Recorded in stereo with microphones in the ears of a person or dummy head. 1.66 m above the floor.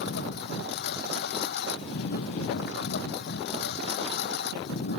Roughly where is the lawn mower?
Left.